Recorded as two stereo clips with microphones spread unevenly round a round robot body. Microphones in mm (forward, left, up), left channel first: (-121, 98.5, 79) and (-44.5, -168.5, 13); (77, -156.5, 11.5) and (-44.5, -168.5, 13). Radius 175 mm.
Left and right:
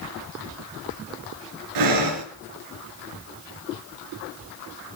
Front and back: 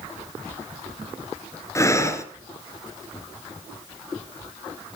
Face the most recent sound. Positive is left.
turn(degrees=-60)